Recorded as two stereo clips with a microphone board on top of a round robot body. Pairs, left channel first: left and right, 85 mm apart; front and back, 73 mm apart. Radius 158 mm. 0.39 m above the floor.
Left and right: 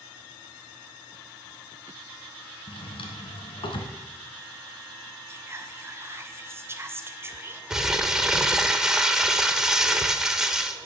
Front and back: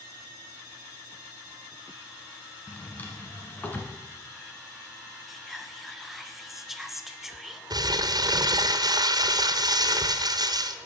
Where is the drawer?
70° left, 1.6 m.